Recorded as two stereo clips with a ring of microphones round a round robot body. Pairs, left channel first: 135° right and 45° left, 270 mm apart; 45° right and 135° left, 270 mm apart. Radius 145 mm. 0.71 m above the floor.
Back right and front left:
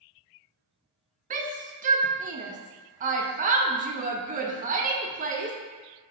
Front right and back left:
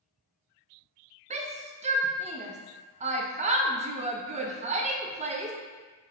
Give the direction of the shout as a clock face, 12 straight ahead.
9 o'clock.